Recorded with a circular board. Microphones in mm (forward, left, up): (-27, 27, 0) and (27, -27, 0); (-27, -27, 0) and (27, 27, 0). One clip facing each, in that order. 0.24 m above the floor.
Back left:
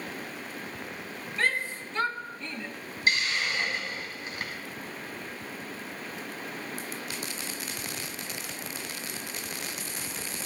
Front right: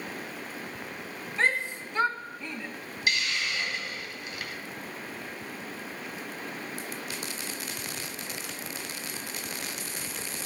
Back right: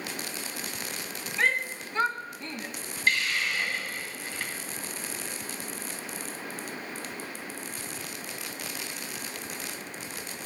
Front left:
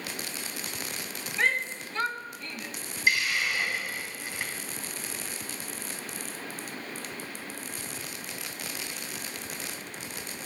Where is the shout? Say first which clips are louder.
Front right 2 dB, back right 1 dB; 45° right, 1.1 m; by 2.7 s 125° right, 1.2 m.